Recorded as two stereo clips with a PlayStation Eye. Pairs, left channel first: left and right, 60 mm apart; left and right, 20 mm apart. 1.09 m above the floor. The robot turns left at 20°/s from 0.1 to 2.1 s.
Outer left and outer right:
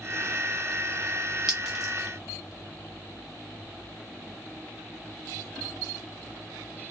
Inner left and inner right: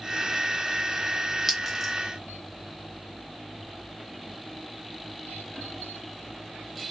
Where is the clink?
5° right (ahead or behind), 1.2 m; by 1.9 s centre (ahead or behind), 1.2 m.